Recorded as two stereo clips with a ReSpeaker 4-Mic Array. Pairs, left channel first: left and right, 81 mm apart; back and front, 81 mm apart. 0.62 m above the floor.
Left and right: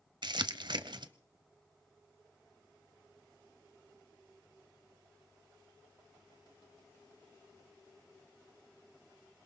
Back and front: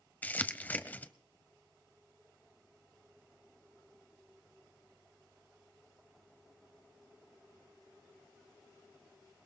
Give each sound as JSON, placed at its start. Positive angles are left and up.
{"t": 0.2, "sound": "crumpling", "azimuth_deg": -110, "distance_m": 0.8}